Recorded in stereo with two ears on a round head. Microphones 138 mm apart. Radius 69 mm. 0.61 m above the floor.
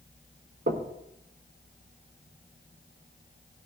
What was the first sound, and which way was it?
Knocking, 50° right (ahead or behind).